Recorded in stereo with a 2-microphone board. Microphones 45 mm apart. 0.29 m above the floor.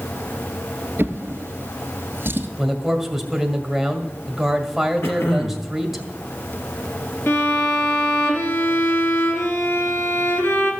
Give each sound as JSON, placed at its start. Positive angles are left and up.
{"t": 1.0, "sound": "a drawer", "side_deg": -50, "distance_m": 1.5}
{"t": 2.6, "sound": "a man speaking", "side_deg": -5, "distance_m": 1.7}
{"t": 5.0, "sound": "throat clearing", "side_deg": 65, "distance_m": 2.5}
{"t": 7.3, "sound": "a violin", "side_deg": 60, "distance_m": 3.5}